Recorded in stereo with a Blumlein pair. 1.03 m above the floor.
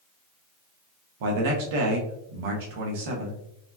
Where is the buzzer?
I don't hear a buzzer.